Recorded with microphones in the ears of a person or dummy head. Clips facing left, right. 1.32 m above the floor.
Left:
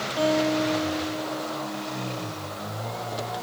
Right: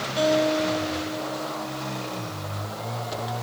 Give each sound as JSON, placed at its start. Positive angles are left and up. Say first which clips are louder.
{"t": 0.2, "sound": "a guitar", "louder": "right 1 dB", "side_deg": -45, "distance_m": 3.0}